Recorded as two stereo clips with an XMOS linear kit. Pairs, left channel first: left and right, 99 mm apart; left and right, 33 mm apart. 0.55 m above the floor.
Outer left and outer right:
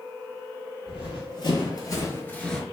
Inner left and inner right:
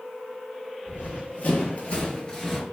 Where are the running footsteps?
60° left (ahead or behind), 1.0 m; by 2.6 s 5° left (ahead or behind), 0.5 m.